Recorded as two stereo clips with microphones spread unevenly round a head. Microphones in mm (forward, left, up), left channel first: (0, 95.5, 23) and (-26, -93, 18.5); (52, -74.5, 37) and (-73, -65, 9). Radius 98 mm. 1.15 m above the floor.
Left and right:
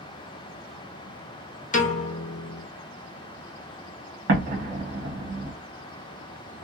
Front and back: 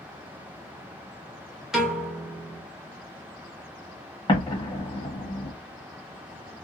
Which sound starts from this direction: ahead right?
An explosion, at 4.3 s.